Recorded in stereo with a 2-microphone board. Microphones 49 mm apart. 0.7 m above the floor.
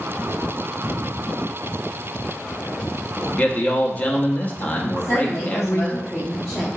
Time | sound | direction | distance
3.2 | a man speaking | 30° left (ahead or behind) | 0.8 m
4.9 | a woman speaking | 15° left (ahead or behind) | 1.1 m